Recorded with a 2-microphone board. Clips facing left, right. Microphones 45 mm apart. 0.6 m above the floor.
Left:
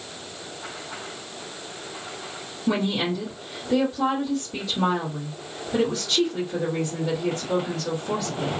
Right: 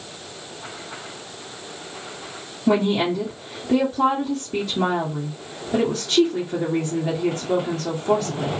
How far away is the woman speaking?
About 1.2 m.